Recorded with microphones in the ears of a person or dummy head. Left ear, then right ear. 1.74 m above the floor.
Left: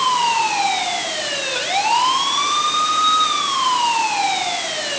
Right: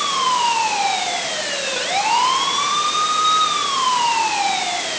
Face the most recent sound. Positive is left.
No sound to turn to.